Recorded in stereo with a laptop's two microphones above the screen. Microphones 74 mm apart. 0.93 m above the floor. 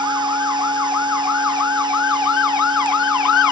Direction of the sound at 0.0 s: 90° right.